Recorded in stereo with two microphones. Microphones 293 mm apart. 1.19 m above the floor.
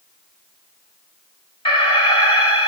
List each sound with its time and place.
1.6 s an alarm: 20° left (ahead or behind), 2.5 m